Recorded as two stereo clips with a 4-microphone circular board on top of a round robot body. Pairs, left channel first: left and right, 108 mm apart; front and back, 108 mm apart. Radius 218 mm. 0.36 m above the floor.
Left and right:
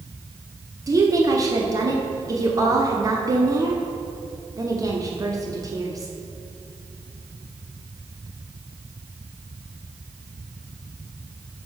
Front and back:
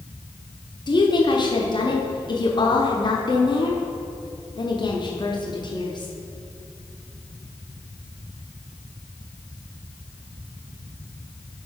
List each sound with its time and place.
0.9 s a woman speaking: 40° right, 1.3 m